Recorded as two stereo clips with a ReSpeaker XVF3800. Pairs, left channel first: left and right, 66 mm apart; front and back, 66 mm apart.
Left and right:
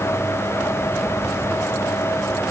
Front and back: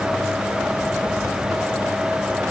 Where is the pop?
I don't hear a pop.